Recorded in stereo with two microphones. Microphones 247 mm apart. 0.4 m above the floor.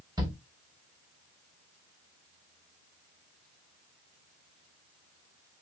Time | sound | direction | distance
0.2 | a shout | 15° right (ahead or behind) | 0.9 m